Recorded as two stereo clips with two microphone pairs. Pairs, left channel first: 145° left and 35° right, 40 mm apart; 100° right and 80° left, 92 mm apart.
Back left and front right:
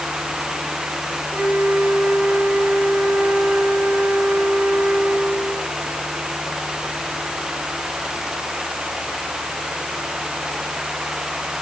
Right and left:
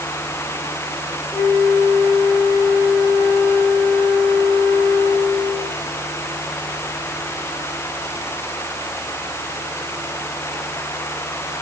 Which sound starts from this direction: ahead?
A flute, at 1.3 s.